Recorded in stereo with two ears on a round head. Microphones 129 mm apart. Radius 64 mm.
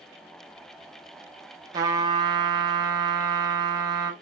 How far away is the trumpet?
About 0.8 m.